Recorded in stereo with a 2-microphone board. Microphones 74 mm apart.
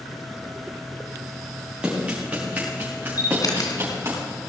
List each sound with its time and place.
1.8 s running footsteps: 15° right (ahead or behind), 5 m; by 4.2 s 35° right (ahead or behind), 6 m
3.2 s a camera shutter: 55° left (ahead or behind), 2 m